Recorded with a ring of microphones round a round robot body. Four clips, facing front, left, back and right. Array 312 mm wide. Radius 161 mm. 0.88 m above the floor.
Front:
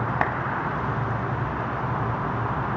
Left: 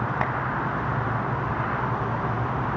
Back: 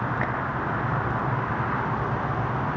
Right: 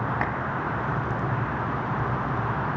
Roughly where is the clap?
Ahead.